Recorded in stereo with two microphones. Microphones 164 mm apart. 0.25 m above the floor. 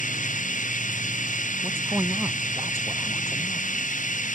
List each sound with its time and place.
0.0 s running water: 55° left (ahead or behind)
1.6 s a man speaking: 15° right (ahead or behind)